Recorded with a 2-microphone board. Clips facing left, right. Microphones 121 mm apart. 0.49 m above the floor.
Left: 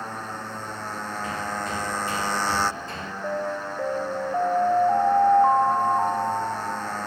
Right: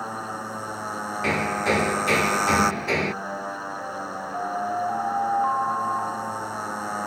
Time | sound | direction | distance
0.0 | a motorcycle | 10° right (ahead or behind) | ?
1.2 | hammering | 85° right | ?
3.2 | an alarm | 35° left (ahead or behind) | ?